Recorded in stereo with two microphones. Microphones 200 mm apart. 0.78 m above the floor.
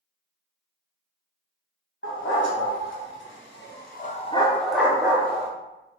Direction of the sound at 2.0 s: 80° left.